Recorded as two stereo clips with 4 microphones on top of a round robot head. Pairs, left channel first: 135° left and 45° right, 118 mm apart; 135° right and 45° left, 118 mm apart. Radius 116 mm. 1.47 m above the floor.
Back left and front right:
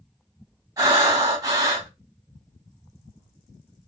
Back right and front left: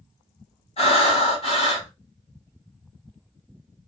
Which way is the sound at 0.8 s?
100° right.